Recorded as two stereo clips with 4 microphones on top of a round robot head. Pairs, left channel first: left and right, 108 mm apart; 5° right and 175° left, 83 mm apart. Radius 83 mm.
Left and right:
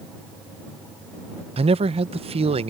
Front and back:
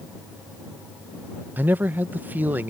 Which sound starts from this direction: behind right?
A man speaking, at 1.6 s.